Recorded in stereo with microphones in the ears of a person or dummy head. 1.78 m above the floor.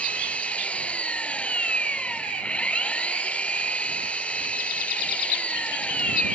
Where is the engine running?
5° left (ahead or behind).